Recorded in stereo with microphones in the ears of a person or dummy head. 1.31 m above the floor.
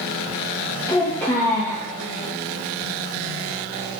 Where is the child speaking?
15° left (ahead or behind), 0.6 m.